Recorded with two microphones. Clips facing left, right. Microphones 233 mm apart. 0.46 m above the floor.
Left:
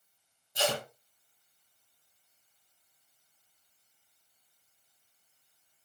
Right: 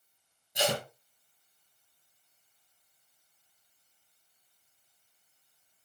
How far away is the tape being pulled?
About 3 m.